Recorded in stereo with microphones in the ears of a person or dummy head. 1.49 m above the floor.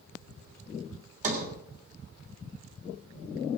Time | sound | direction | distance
1.2 | a sliding door | 45° right (ahead or behind) | 3 m